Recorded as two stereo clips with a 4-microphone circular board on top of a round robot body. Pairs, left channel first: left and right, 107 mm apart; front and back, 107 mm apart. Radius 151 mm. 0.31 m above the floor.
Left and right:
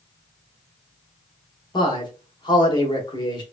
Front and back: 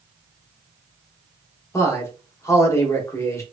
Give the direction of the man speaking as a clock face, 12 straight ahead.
10 o'clock.